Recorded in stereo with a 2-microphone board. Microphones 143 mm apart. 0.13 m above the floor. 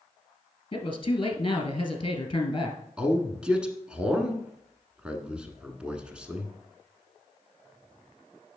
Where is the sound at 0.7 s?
35° left (ahead or behind), 1.7 m.